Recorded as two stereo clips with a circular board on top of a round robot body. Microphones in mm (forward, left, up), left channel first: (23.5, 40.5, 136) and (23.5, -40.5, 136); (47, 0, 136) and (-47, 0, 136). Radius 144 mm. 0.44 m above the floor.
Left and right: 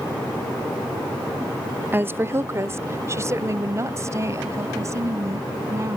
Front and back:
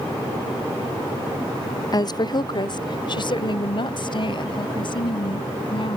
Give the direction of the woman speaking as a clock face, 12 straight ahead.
1 o'clock.